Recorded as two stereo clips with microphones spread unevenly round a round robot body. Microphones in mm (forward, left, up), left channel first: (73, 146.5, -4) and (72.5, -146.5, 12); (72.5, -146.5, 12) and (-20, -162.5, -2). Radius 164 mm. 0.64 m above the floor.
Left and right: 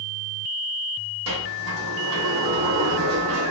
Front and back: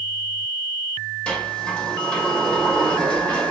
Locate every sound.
1.3 s a sliding door: 75° right, 1.6 m